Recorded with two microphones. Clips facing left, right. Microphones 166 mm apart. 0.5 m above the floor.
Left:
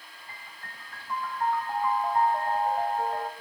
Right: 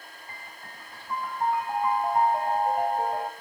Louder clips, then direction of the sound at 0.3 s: Right 1 dB; 15° right (ahead or behind).